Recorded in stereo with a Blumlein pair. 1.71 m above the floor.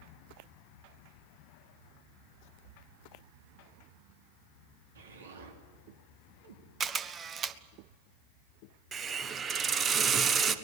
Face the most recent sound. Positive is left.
turn(degrees=-25)